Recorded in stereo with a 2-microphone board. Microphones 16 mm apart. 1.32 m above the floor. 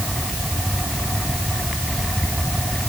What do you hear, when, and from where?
Only background noise.